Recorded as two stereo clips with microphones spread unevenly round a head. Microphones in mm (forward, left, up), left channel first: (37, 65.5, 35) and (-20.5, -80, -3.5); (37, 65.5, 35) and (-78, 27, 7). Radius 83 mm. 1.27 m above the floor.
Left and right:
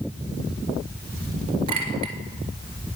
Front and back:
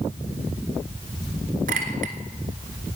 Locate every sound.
1.7 s a clink: 175° right, 1.7 m